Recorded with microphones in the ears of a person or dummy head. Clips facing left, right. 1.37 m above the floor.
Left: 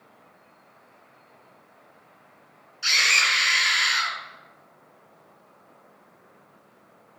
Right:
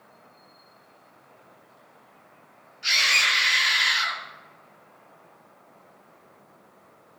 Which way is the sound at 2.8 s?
55° left (ahead or behind).